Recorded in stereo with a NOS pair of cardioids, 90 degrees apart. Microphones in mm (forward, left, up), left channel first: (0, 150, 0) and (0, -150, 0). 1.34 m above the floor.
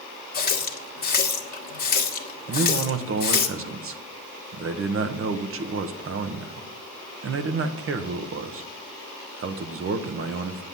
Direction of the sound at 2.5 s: 45° right.